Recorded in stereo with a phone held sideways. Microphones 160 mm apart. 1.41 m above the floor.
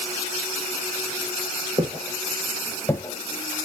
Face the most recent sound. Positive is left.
turn(degrees=50)  # may be behind; listen again after turning